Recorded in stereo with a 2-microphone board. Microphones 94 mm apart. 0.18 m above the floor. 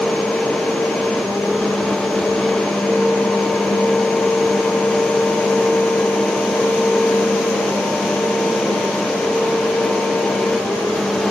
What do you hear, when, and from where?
Only background noise.